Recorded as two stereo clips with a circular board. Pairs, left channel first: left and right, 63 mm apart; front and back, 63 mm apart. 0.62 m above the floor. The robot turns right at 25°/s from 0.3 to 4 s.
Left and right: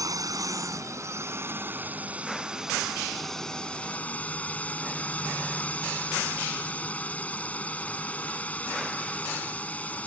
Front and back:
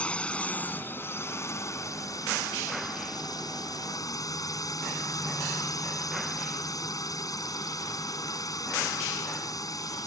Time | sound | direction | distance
0.0 | a drone | 70° right | ?